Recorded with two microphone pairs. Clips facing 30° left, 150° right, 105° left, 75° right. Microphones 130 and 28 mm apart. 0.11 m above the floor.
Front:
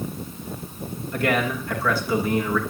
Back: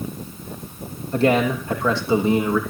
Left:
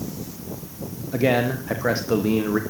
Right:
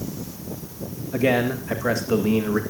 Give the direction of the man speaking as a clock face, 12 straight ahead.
7 o'clock.